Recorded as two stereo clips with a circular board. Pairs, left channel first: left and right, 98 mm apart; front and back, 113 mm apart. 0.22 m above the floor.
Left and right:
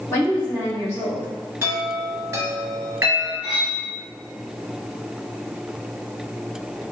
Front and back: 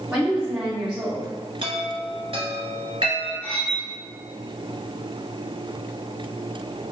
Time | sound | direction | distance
0.1 | a woman speaking | 115° left | 1.7 m
1.6 | a chime | 155° right | 1.1 m
3.4 | cutlery clinking | 75° left | 1.3 m